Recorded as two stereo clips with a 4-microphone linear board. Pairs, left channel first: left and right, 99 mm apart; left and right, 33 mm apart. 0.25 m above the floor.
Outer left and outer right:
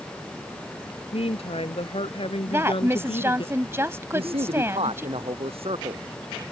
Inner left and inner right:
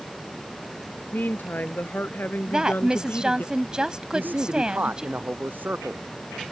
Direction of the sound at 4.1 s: 70° right (ahead or behind).